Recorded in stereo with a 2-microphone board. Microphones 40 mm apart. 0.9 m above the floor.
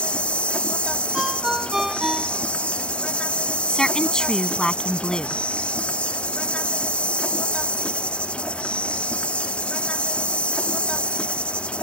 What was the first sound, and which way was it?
An insect, 30° left (ahead or behind).